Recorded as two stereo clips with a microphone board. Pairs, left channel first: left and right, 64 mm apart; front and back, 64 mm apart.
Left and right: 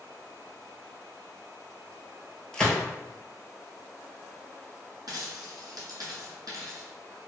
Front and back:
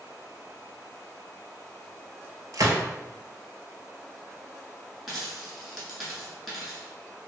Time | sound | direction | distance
2.5 | a gunshot | 165° left | 0.7 m
5.1 | a dropped coin | 95° right | 1.5 m